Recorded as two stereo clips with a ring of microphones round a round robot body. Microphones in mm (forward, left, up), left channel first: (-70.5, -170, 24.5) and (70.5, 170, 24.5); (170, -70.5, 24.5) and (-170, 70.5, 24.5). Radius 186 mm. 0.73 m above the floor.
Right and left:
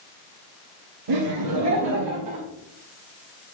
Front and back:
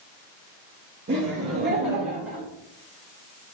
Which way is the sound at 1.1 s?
95° left.